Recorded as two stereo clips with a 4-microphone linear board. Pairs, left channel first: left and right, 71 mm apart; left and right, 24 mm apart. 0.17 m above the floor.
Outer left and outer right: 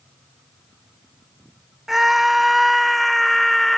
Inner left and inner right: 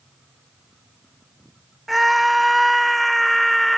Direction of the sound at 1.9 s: Centre (ahead or behind).